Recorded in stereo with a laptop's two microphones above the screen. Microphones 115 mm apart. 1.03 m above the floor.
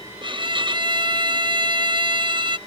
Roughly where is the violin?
Right.